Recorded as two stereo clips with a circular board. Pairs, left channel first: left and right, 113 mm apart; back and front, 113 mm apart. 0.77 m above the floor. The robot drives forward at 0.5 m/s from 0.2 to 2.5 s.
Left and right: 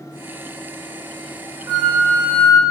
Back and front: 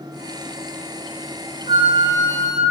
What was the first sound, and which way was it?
A flute, 35° right.